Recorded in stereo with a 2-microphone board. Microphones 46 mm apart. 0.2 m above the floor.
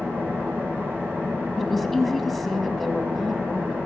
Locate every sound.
0.0 s an engine running: 50° right (ahead or behind), 5.5 m
1.6 s a woman speaking: 5° left (ahead or behind), 1.1 m